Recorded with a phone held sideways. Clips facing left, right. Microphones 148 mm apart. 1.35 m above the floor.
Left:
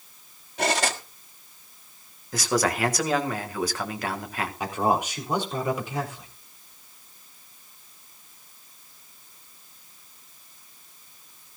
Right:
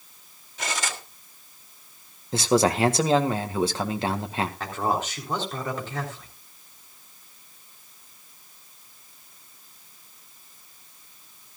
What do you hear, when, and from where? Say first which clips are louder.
0.6 s cutlery clinking: left 7 dB; 65° left (ahead or behind), 1.5 m
2.3 s a man speaking: right 4 dB; 25° right (ahead or behind), 1.8 m
4.6 s a man speaking: left 6 dB; 15° left (ahead or behind), 4 m